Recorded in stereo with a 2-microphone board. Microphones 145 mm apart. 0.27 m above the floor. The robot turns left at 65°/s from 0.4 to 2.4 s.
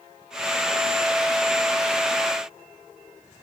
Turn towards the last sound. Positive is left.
No sound to turn to.